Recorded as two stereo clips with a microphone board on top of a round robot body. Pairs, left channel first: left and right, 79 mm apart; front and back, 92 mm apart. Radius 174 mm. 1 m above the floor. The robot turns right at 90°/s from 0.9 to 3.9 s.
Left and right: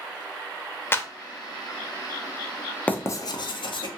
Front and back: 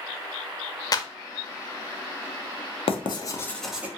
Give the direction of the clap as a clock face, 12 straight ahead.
11 o'clock.